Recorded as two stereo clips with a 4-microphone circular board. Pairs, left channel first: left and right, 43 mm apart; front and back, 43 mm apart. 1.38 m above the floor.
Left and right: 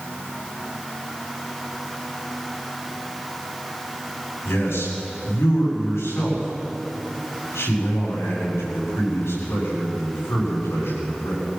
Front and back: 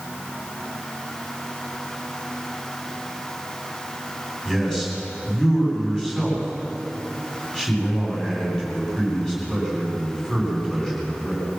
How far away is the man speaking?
About 8.5 m.